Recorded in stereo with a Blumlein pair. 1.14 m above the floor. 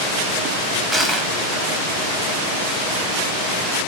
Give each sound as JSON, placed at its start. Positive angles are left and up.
{"t": 0.9, "sound": "crushing", "azimuth_deg": -5, "distance_m": 1.1}